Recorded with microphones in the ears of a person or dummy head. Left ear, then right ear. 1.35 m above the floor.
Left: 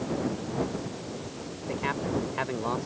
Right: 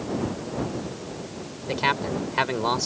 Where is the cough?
No cough in this recording.